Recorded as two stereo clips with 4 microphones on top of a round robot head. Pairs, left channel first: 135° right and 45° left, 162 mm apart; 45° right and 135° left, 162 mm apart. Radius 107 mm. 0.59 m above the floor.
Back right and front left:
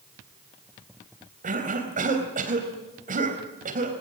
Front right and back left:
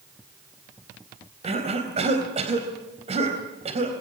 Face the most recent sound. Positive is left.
turn(degrees=85)